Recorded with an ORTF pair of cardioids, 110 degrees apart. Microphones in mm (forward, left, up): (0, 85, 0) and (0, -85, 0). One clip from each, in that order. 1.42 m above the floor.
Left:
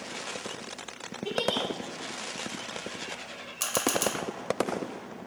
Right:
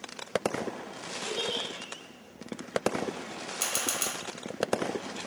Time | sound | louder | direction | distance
1.2 | a giggle | left 4 dB | 70° left | 1.5 m
3.6 | a camera shutter | left 4 dB | 15° left | 0.9 m